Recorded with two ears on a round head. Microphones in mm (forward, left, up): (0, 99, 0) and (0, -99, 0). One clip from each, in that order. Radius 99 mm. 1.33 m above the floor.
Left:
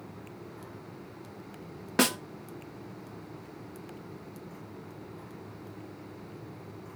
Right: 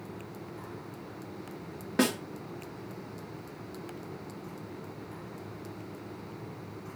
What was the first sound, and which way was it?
A snare drum, 35° left (ahead or behind).